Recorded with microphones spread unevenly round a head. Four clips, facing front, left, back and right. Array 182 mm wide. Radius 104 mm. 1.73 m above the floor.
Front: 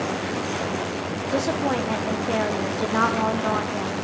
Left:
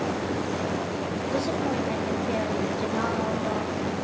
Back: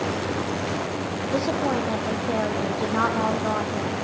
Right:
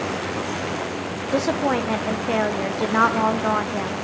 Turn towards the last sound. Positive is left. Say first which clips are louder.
# right 7 dB, even
turn(degrees=-80)